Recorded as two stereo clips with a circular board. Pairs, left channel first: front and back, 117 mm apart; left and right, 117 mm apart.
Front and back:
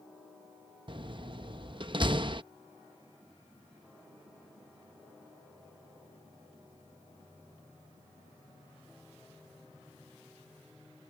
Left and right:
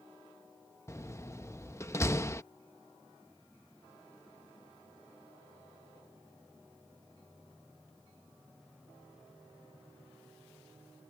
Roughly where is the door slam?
Behind left.